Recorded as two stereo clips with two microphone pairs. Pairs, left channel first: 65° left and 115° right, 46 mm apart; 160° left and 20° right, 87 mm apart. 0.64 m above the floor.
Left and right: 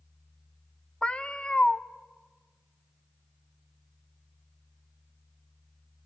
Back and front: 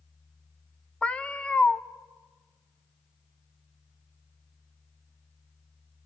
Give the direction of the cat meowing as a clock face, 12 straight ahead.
9 o'clock.